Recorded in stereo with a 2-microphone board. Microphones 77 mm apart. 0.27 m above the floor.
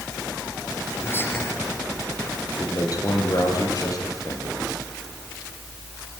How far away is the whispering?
About 5 m.